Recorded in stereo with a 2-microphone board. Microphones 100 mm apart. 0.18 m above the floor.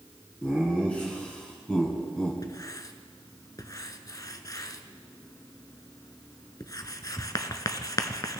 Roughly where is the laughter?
Centre.